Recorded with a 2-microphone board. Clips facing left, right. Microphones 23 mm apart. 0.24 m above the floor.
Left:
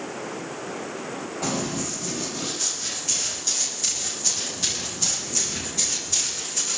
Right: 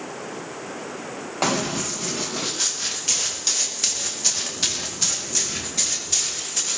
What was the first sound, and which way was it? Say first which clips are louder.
Running footsteps: right 5 dB; 60° right (ahead or behind).